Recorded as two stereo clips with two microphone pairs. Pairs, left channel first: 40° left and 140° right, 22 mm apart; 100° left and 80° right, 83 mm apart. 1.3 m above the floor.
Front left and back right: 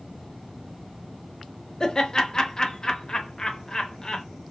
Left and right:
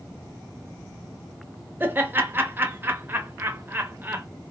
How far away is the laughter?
About 0.6 m.